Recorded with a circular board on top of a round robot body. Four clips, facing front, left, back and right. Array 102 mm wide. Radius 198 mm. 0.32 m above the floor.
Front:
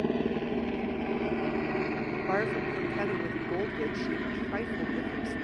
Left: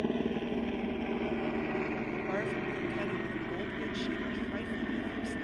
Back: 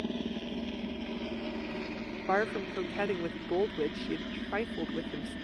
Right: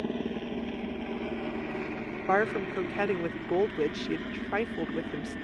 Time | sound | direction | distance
0.0 | a helicopter | 5° left | ?
2.3 | a woman speaking | 95° right | ?